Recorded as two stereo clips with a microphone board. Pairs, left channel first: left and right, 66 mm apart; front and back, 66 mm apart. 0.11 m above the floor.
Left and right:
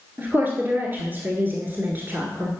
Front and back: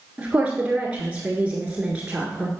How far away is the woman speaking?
About 1.5 m.